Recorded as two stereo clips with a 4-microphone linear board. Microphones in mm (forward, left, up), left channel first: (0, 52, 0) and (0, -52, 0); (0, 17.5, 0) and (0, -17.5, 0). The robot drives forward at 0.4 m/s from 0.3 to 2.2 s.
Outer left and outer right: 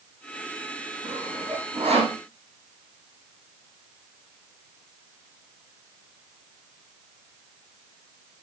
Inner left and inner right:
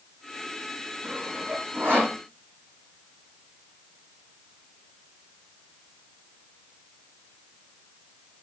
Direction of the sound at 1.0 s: 85° right.